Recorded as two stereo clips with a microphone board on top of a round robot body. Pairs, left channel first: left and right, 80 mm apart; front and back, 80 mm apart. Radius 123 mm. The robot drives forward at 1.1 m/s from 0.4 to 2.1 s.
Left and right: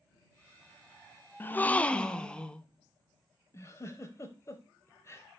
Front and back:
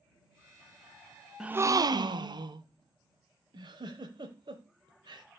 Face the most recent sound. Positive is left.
turn(degrees=145)